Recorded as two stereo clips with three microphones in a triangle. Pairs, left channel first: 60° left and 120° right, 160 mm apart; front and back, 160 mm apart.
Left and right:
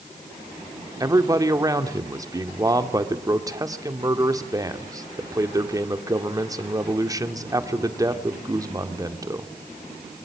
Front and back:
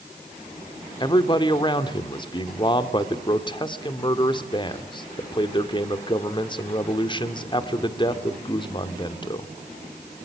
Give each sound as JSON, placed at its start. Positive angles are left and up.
{"t": 1.0, "sound": "a man speaking", "azimuth_deg": -55, "distance_m": 1.6}